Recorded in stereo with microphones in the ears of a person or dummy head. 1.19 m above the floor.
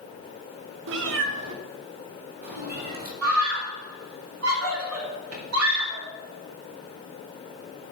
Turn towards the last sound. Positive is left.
turn(degrees=-80)